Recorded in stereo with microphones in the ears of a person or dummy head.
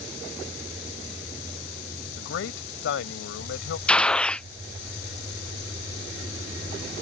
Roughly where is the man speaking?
Left.